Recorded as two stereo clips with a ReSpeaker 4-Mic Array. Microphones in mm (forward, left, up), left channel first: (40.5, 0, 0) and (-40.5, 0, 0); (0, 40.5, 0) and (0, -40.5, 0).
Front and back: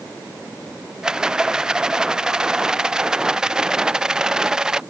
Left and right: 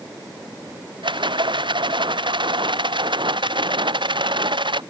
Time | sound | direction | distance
1.0 | a rattle | 100° right | ?